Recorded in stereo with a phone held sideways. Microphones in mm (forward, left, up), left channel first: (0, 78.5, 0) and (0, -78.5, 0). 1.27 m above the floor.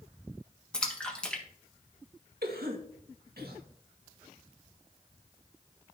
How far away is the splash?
About 1.6 m.